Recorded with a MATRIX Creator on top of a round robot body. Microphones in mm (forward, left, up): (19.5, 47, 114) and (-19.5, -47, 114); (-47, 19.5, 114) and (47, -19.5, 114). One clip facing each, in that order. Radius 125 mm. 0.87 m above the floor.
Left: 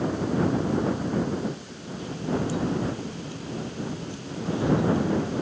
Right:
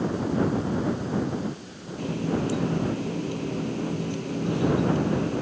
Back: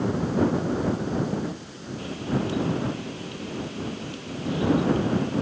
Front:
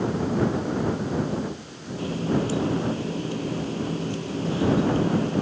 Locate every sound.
2.0 s a running tap: 80° right